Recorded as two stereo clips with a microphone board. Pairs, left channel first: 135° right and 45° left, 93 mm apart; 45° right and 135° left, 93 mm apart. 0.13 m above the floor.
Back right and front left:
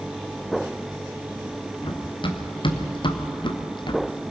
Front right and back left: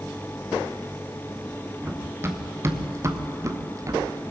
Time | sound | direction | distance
1.8 | running footsteps | 160° right | 3 m